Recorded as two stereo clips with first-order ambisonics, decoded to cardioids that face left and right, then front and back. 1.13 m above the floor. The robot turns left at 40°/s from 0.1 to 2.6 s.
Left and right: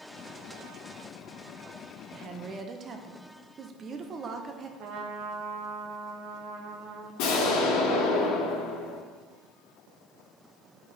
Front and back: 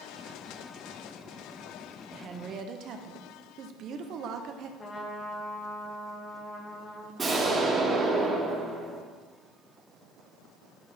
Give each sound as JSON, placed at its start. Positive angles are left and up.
{"t": 2.1, "sound": "a woman speaking", "azimuth_deg": -125, "distance_m": 0.8}
{"t": 4.8, "sound": "a trumpet", "azimuth_deg": -70, "distance_m": 1.2}
{"t": 7.2, "sound": "an explosion", "azimuth_deg": 105, "distance_m": 2.0}